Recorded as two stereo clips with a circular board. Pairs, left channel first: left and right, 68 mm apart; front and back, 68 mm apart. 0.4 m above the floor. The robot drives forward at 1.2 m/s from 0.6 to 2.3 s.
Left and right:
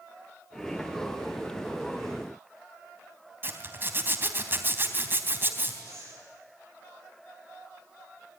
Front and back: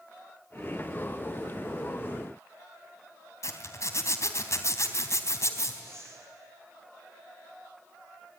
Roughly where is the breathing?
Behind right.